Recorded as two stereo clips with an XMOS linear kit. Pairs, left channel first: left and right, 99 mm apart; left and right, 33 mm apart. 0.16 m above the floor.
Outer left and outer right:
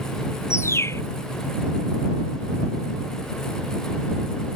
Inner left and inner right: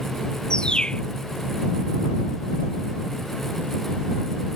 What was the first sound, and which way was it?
A bird, 25° left (ahead or behind).